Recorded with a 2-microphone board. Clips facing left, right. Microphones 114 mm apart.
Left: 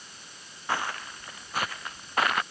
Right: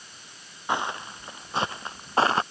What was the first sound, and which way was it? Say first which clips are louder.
Footsteps: right 3 dB; 20° right (ahead or behind).